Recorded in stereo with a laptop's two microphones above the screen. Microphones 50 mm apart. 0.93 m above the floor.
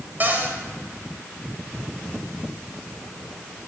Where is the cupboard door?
40° right (ahead or behind), 1.6 m.